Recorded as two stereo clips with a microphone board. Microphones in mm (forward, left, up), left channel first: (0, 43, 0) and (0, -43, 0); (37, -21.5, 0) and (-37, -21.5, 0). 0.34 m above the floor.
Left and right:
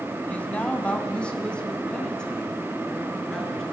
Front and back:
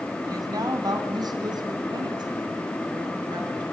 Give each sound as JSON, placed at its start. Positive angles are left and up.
{"t": 0.3, "sound": "a woman speaking", "azimuth_deg": 160, "distance_m": 2.0}